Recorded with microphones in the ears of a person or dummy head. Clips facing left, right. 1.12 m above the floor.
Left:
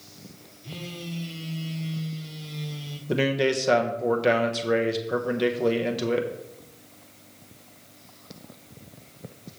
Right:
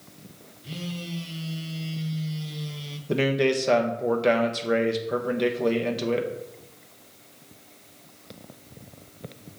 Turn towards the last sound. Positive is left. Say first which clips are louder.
# right 1 dB
turn(degrees=0)  # may be behind; listen again after turning